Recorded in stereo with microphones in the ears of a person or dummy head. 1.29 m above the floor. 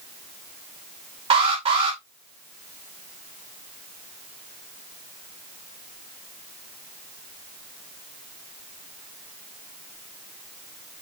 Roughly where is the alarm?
Right.